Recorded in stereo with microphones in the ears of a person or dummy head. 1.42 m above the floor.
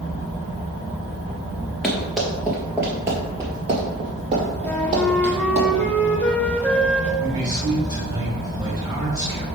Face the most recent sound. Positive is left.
turn(degrees=-20)  # may be behind; listen again after turning